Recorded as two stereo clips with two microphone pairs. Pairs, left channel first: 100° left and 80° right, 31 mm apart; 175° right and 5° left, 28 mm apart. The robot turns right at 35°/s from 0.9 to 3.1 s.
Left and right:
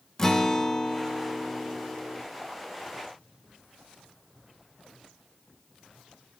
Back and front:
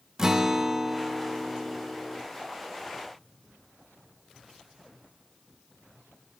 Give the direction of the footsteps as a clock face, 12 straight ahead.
No footsteps in this recording.